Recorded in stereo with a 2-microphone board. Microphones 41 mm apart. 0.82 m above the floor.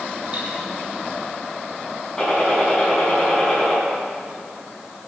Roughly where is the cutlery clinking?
Right.